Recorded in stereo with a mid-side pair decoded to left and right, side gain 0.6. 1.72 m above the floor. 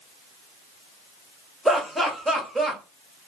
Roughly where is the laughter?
Ahead.